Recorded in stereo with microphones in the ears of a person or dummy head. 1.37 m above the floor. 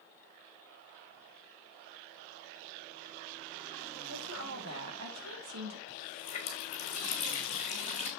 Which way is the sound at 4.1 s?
70° right (ahead or behind).